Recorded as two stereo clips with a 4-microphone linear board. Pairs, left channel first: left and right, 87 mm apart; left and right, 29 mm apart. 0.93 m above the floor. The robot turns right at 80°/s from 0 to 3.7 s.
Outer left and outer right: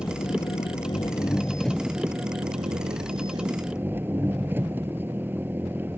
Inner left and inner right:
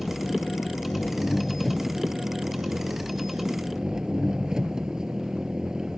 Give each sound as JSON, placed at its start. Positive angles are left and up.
{"t": 0.0, "sound": "an engine running", "azimuth_deg": 40}